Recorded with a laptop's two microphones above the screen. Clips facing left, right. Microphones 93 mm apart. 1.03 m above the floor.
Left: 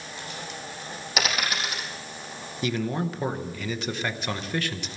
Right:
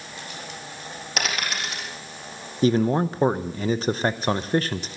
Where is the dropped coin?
Centre (ahead or behind), 4 m.